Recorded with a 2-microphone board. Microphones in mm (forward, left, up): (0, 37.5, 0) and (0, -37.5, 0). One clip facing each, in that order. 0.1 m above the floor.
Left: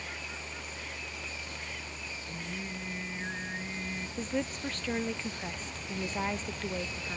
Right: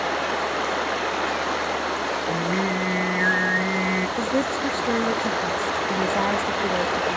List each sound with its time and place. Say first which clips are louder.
0.0 s running water: right 19 dB; 70° right (ahead or behind)
2.3 s singing: right 15 dB; 65° right (ahead or behind)
4.2 s a woman speaking: right 11 dB; 30° right (ahead or behind)